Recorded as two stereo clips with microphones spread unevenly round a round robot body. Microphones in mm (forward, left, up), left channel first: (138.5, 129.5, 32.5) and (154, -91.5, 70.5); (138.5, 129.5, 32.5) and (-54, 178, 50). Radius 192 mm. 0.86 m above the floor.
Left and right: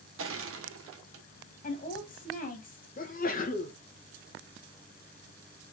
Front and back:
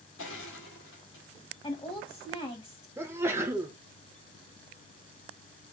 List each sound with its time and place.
0.2 s crushing: 60° right, 0.9 m
1.6 s a woman speaking: 50° left, 1.5 m
3.0 s a sneeze: 85° left, 0.9 m